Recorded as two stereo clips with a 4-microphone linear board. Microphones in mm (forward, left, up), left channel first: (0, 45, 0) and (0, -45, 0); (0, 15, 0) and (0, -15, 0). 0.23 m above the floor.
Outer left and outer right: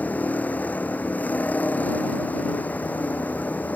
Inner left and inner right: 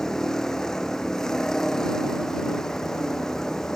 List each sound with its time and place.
0.0 s a vehicle: 15° left (ahead or behind)